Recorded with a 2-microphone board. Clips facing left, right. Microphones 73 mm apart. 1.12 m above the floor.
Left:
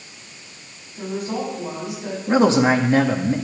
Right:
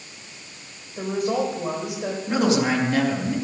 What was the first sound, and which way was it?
A woman speaking, 65° right (ahead or behind).